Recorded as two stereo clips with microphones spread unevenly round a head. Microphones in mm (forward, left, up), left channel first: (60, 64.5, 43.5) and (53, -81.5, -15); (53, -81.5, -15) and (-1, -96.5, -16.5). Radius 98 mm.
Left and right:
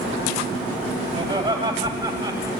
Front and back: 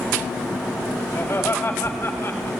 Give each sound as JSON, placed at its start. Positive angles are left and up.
{"t": 1.1, "sound": "laughter", "azimuth_deg": -40, "distance_m": 5.0}